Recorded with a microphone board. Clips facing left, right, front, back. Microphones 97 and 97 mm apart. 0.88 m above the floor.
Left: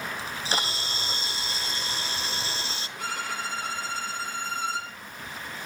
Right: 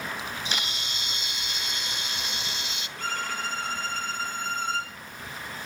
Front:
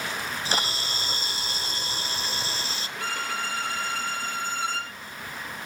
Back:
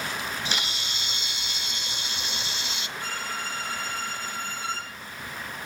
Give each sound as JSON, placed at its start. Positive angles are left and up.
{"t": 0.2, "sound": "a camera shutter", "azimuth_deg": 45, "distance_m": 0.7}
{"t": 3.0, "sound": "a violin", "azimuth_deg": 10, "distance_m": 5.5}